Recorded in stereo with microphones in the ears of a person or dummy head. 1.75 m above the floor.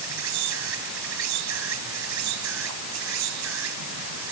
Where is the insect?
75° right (ahead or behind).